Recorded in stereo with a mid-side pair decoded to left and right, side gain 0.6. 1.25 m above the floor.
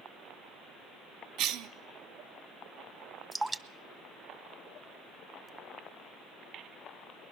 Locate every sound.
1.4 s a cough: 70° right, 0.8 m
3.3 s dripping: 15° right, 0.6 m